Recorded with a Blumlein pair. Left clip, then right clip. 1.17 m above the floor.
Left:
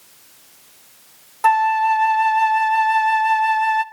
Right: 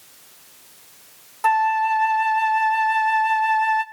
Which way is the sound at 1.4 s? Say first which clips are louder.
Left 3 dB; 15° left.